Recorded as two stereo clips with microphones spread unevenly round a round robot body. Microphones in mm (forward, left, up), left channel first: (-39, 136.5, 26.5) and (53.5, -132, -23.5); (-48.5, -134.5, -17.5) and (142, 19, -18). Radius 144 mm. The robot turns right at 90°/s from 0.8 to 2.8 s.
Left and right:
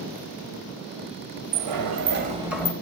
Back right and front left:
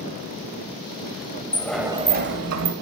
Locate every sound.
1.5 s a sliding door: 70° right, 1.4 m; by 2.7 s 40° left, 1.4 m